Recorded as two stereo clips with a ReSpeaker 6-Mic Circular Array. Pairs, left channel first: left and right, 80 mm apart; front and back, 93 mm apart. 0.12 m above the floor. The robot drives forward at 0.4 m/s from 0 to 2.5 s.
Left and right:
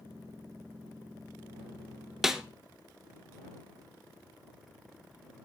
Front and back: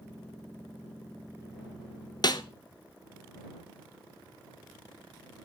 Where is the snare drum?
5° right, 0.9 m.